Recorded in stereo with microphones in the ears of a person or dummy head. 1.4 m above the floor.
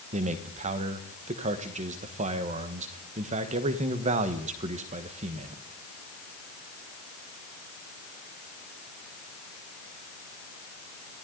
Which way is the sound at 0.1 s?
30° right (ahead or behind).